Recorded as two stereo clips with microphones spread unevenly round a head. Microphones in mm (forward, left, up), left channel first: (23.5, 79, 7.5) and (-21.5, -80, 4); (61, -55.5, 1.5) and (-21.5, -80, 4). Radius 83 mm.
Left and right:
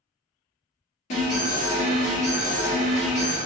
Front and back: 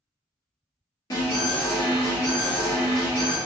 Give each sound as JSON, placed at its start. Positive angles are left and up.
{"t": 1.1, "sound": "an alarm", "azimuth_deg": 45, "distance_m": 1.8}